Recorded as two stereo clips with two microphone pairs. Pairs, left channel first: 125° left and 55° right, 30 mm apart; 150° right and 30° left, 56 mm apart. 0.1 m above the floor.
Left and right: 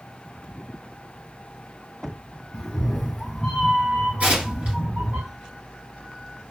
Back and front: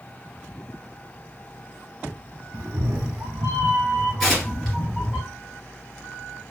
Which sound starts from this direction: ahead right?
Tearing paper, at 4.2 s.